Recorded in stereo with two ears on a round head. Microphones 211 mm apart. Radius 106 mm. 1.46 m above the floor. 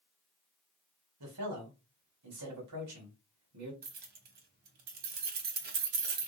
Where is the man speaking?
70° right (ahead or behind), 1.3 m.